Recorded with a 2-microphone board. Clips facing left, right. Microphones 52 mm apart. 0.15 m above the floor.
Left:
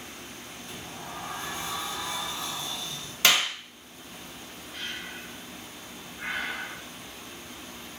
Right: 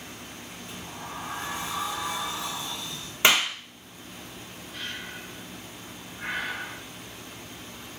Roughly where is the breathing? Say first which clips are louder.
Even; centre.